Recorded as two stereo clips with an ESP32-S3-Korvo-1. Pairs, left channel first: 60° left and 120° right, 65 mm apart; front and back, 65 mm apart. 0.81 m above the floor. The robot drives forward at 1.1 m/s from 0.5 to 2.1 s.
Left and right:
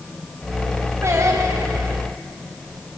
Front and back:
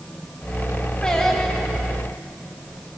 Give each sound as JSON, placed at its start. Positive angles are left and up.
{"t": 1.0, "sound": "singing", "azimuth_deg": -75, "distance_m": 2.5}